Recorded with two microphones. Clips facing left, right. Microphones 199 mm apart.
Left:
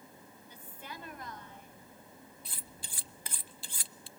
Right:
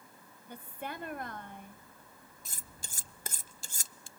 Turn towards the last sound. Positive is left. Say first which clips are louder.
# left 2 dB
turn(degrees=-45)  # may be behind; listen again after turning